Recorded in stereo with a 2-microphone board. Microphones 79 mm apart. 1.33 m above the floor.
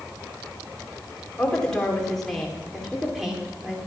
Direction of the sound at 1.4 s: 15° left (ahead or behind).